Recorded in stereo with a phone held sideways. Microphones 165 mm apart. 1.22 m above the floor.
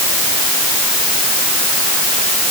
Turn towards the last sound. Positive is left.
No sound to turn to.